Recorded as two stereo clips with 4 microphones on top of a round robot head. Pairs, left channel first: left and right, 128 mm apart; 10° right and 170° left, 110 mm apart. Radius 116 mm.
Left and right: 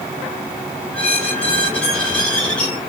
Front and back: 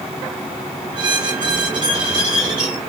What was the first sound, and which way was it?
A squeak, 170° left.